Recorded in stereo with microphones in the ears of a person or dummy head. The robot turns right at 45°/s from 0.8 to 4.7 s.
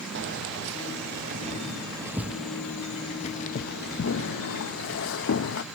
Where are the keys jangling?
70° right (ahead or behind), 0.8 m; by 5.6 s 75° left (ahead or behind), 0.8 m.